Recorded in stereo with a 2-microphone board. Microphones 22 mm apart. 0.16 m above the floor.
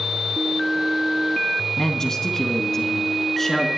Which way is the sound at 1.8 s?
25° left (ahead or behind).